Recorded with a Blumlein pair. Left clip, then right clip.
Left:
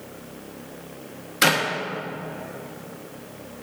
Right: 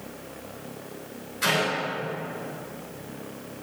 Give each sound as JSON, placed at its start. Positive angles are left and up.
{"t": 1.4, "sound": "a clap", "azimuth_deg": 40, "distance_m": 2.0}